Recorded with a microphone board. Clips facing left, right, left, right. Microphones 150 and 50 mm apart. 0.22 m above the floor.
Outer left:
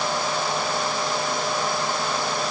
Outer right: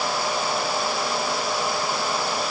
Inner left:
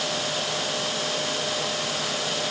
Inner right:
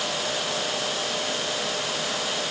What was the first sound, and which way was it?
Only background noise.